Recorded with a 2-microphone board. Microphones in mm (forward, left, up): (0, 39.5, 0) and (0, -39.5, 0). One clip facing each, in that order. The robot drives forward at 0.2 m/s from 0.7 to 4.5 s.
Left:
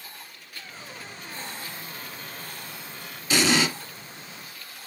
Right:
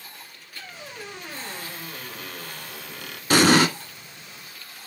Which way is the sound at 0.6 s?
70° right (ahead or behind).